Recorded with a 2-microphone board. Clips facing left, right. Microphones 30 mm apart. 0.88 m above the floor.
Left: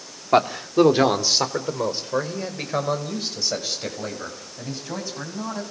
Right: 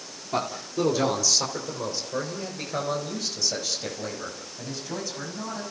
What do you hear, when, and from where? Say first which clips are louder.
0.3 s a man speaking: left 10 dB; 55° left (ahead or behind), 2.5 m; by 5.6 s 15° left (ahead or behind), 7.5 m